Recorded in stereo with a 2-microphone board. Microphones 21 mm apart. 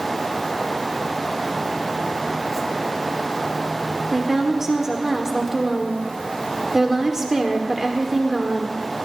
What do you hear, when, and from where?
4.1 s a woman speaking: 20° right (ahead or behind), 1.5 m